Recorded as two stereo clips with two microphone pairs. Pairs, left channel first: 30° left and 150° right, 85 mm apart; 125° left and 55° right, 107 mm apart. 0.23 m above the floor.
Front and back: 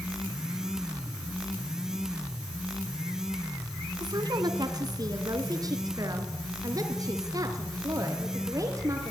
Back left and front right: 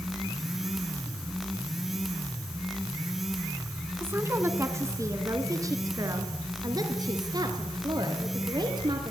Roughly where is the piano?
I don't hear a piano.